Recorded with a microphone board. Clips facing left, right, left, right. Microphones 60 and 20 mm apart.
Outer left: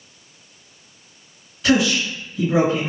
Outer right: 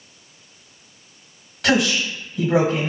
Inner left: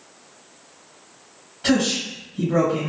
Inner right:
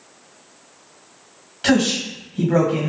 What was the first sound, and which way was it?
A man speaking, 75° right (ahead or behind).